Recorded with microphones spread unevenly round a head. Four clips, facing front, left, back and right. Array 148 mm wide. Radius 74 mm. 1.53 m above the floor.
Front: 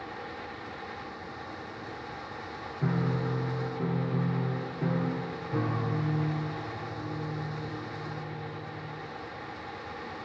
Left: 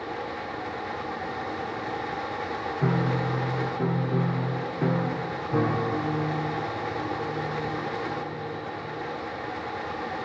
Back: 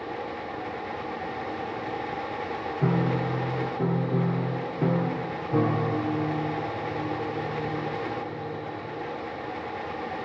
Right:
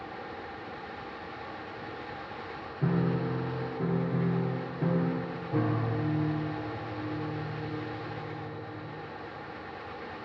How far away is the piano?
About 0.8 m.